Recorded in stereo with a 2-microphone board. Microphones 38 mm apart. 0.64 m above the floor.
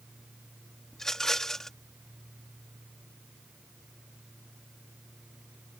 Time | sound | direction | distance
0.9 | a rattle | 10° left (ahead or behind) | ?